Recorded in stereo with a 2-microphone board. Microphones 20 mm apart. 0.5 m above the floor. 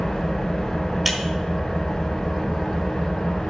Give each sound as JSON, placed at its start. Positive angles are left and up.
{"t": 0.0, "sound": "an engine running", "side_deg": 40, "distance_m": 2.0}
{"t": 1.1, "sound": "breaking glass", "side_deg": -10, "distance_m": 1.2}